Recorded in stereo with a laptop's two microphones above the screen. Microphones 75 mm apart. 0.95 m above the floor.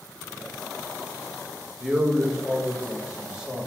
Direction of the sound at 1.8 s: 10° right (ahead or behind).